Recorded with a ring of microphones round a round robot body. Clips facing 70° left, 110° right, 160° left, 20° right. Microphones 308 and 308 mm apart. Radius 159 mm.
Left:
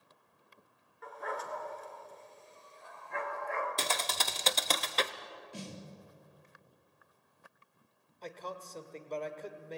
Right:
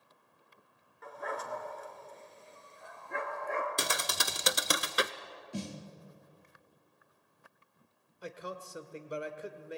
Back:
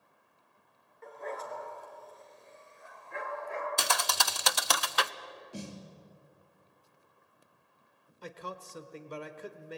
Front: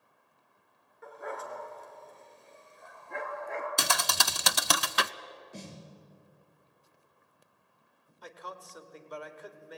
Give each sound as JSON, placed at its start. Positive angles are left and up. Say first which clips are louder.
{"t": 1.0, "sound": "a dog barking", "louder": "right 1 dB, even", "azimuth_deg": -105, "distance_m": 3.0}
{"t": 3.8, "sound": "a thud", "louder": "right 1 dB, even", "azimuth_deg": -35, "distance_m": 0.5}
{"t": 5.5, "sound": "a snare drum", "louder": "right 6 dB, back 4 dB", "azimuth_deg": -120, "distance_m": 3.5}
{"t": 8.2, "sound": "a man speaking", "louder": "right 1 dB, back 3 dB", "azimuth_deg": 180, "distance_m": 1.4}